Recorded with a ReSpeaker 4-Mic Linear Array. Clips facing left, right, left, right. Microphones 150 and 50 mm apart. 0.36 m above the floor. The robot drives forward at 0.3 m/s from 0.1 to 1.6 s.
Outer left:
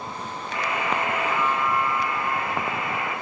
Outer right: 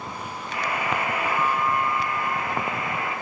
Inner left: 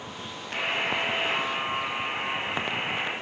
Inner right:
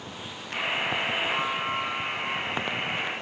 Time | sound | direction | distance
0.5 | a buzzer | 45° left (ahead or behind) | 1.9 m